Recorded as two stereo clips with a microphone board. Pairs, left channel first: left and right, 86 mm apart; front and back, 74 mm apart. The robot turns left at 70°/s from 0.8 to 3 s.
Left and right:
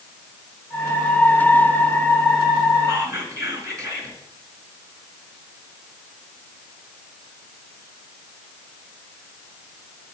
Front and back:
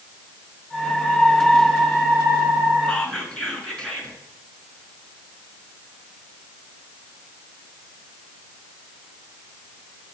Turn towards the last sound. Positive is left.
turn(degrees=-65)